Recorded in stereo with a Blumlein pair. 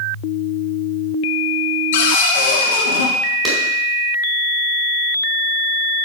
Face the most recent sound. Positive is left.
turn(degrees=-15)